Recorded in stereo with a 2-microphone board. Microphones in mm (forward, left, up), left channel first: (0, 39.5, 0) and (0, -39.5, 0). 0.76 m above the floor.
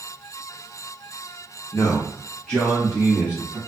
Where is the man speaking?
35° left (ahead or behind), 0.7 m; by 3.6 s 10° right (ahead or behind), 1.3 m.